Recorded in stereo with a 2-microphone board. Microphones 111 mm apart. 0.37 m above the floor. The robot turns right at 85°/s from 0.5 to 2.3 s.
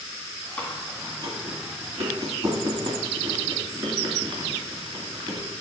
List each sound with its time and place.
0.6 s chewing: 15° left (ahead or behind), 2 m; by 5.5 s 45° right (ahead or behind), 2 m